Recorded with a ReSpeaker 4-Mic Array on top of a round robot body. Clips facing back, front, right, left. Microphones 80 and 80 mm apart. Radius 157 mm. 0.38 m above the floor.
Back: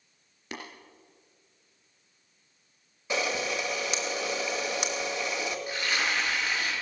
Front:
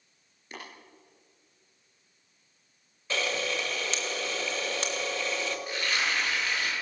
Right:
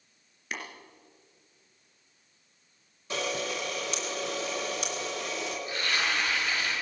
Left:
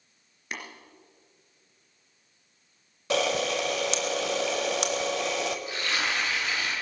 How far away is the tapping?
About 3 m.